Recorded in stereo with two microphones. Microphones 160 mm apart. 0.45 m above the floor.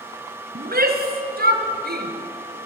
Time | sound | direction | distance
0.6 | a shout | 75° right (ahead or behind) | 4.5 m